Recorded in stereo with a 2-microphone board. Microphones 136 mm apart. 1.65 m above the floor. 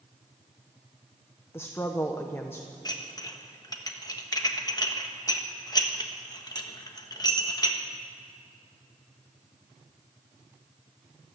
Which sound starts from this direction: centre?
A woman speaking, at 1.5 s.